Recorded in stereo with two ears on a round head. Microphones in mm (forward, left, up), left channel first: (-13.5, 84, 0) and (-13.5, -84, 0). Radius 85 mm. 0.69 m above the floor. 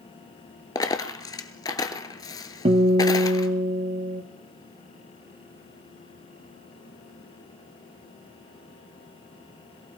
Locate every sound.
0.8 s a dropped coin: 20° left (ahead or behind), 0.8 m
2.6 s a guitar: 30° right (ahead or behind), 1.1 m